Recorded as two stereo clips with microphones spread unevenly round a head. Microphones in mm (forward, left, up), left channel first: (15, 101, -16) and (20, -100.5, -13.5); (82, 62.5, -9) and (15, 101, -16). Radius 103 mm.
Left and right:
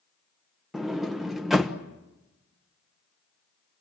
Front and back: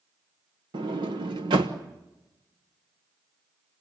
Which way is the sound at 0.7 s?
175° right.